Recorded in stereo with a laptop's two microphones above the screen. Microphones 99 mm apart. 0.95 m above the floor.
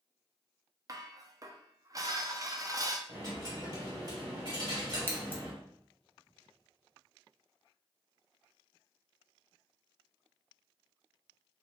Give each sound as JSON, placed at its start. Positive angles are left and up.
{"t": 0.9, "sound": "dishes clattering", "side_deg": -35, "distance_m": 0.6}
{"t": 3.1, "sound": "a dropped coin", "side_deg": -40, "distance_m": 2.0}
{"t": 5.1, "sound": "scissors", "side_deg": 20, "distance_m": 0.6}